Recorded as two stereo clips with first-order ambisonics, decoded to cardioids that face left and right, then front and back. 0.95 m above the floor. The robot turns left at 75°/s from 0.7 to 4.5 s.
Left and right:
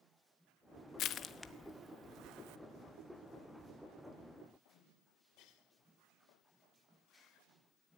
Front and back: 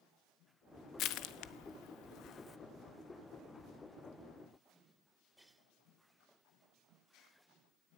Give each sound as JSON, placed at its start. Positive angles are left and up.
{"t": 1.0, "sound": "crushing", "azimuth_deg": 45, "distance_m": 0.8}